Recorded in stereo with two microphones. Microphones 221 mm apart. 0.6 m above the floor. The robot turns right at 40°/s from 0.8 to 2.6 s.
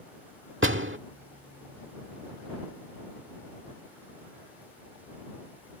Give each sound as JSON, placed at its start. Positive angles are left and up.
{"t": 0.6, "sound": "a door slam", "side_deg": -60}